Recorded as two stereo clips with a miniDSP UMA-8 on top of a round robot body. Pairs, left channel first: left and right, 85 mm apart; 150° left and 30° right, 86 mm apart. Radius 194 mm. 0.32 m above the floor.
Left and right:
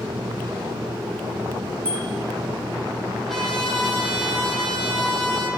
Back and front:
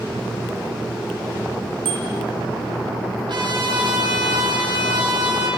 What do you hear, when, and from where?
1.9 s a bicycle bell: 15° right, 9 m
3.3 s a trumpet: straight ahead, 9.5 m